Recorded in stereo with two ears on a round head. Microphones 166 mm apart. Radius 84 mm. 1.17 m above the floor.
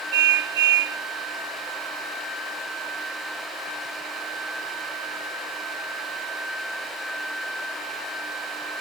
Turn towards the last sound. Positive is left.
turn(degrees=-70)  # may be behind; listen again after turning